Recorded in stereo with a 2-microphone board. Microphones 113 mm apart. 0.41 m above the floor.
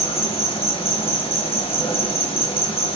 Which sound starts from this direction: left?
An insect, at 0.0 s.